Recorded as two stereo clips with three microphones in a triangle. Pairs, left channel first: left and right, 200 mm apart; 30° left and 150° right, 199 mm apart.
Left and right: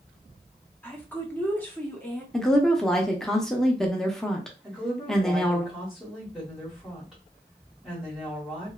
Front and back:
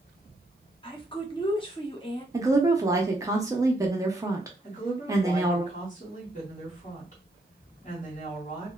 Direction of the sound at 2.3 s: 175° left.